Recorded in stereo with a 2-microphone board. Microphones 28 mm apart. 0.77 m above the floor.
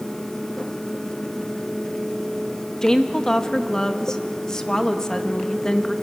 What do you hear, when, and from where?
2.8 s a woman speaking: 20° left (ahead or behind), 1.0 m